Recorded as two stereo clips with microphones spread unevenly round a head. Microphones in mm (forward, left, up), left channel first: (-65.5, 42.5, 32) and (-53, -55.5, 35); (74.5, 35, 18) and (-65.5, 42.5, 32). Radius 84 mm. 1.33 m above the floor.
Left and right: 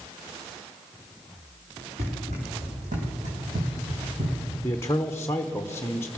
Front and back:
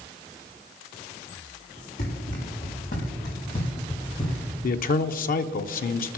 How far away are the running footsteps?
About 5.5 m.